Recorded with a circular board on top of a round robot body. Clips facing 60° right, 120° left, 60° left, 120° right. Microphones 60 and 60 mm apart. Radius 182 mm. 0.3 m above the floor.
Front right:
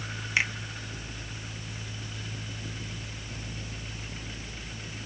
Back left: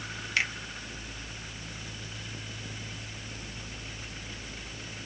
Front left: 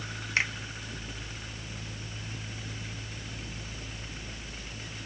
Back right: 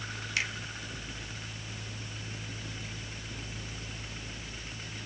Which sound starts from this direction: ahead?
A finger snap, at 0.4 s.